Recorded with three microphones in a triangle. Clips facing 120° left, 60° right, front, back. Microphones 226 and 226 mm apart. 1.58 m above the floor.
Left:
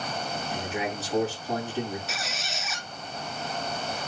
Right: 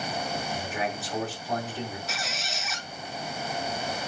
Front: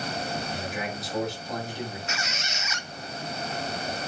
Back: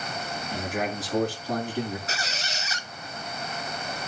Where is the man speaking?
175° left, 3.5 m.